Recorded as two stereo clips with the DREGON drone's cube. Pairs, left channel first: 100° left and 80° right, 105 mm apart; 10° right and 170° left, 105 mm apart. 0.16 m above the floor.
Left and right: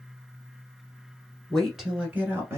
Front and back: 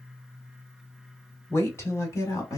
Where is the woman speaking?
20° left, 1.5 m; by 2.6 s 40° right, 1.6 m.